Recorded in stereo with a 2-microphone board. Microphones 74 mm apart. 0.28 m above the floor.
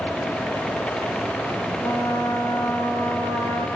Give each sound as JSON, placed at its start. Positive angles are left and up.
{"t": 1.8, "sound": "a trumpet", "side_deg": 40, "distance_m": 4.0}